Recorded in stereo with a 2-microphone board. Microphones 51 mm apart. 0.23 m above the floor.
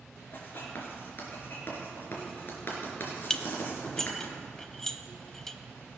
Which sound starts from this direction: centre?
Dishes clattering, at 3.3 s.